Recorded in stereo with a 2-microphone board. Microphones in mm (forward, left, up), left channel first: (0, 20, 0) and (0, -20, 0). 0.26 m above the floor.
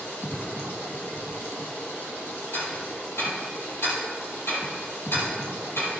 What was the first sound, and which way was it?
Running water, 75° left (ahead or behind).